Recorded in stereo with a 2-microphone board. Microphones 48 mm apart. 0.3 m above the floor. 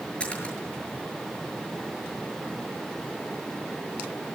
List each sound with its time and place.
0.2 s a splash: 25° left (ahead or behind), 6.5 m